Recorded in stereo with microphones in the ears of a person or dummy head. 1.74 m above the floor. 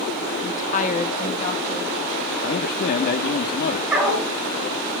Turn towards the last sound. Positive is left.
turn(degrees=-5)  # may be behind; listen again after turning